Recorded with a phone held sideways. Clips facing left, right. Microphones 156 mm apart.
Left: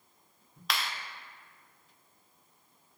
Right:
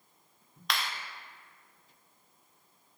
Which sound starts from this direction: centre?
A clap, at 0.7 s.